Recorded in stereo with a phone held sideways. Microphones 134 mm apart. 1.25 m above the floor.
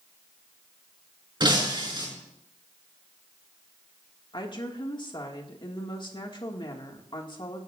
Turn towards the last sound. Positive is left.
turn(degrees=35)  # may be behind; listen again after turning